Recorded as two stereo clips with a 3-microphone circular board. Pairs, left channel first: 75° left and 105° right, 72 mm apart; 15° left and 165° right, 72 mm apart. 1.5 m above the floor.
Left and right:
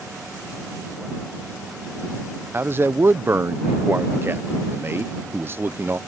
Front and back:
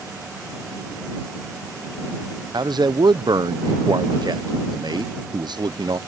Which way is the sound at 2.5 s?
160° right.